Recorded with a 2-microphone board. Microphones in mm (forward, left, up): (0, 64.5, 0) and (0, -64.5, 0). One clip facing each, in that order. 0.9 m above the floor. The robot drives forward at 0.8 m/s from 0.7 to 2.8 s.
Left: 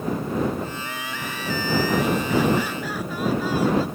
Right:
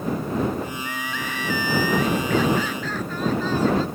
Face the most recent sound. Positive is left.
turn(degrees=10)  # may be behind; listen again after turning